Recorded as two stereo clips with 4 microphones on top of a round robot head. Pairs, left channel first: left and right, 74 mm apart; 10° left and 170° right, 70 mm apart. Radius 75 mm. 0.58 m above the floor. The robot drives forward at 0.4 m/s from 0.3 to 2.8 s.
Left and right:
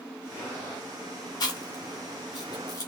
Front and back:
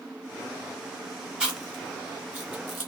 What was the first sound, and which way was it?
Chewing, 115° left.